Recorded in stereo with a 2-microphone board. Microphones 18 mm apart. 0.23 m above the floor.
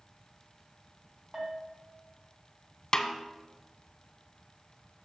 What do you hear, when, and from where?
1.3 s a bell: 25° right (ahead or behind), 1.7 m
2.9 s a snare drum: 35° left (ahead or behind), 0.5 m